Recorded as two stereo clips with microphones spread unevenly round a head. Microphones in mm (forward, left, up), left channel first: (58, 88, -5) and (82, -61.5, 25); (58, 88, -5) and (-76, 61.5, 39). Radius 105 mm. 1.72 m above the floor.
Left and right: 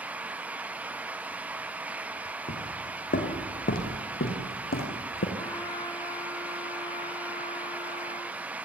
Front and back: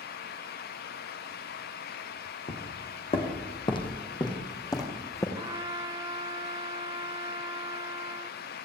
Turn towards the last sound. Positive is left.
turn(degrees=180)